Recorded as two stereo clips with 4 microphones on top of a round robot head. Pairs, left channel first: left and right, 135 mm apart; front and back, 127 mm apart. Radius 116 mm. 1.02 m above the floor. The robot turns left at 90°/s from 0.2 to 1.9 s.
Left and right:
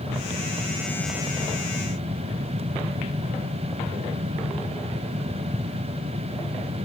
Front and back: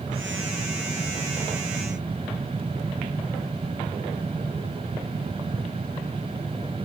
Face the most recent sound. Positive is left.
No sound to turn to.